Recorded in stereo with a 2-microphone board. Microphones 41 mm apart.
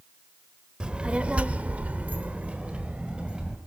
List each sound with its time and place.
0.8 s a child speaking: 20° right (ahead or behind), 1.4 m; by 3.6 s 25° right (ahead or behind), 2 m